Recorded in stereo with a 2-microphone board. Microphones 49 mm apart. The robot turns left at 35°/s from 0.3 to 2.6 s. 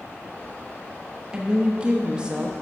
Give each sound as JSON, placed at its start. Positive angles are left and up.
{"t": 1.3, "sound": "a woman speaking", "side_deg": -20, "distance_m": 0.7}